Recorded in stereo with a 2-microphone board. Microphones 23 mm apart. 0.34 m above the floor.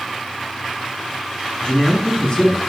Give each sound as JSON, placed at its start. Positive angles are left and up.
{"t": 1.6, "sound": "a man speaking", "side_deg": 45, "distance_m": 3.5}